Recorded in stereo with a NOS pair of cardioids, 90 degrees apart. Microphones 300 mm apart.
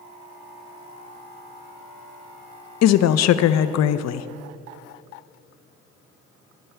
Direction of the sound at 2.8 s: 60° left.